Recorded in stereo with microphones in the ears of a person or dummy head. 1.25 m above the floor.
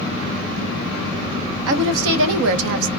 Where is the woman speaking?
75° right (ahead or behind), 0.6 m.